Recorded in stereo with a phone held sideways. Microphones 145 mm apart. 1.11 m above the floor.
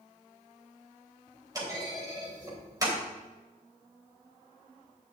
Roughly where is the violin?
I don't hear a violin.